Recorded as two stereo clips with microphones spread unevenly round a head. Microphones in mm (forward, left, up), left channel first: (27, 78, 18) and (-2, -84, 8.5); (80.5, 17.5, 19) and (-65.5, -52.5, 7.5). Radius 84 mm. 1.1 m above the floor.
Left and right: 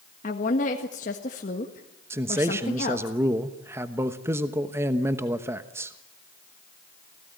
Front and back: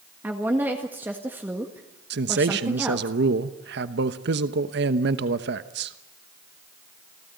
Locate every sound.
0.2 s a woman speaking: 125° left, 1.6 m
2.1 s a man speaking: 175° right, 1.0 m